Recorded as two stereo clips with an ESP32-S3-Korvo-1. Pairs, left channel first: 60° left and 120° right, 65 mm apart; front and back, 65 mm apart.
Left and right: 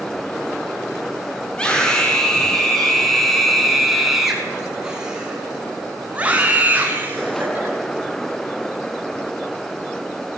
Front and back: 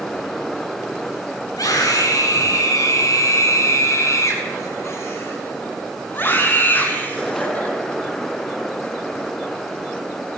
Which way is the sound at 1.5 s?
20° right.